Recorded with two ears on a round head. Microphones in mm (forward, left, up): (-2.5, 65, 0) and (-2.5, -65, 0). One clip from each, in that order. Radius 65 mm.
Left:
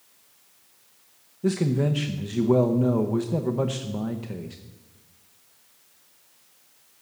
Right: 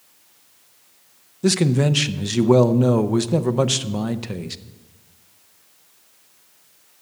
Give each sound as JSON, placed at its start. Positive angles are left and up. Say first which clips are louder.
{"t": 1.4, "sound": "a man speaking", "louder": "right 6 dB", "side_deg": -80, "distance_m": 0.7}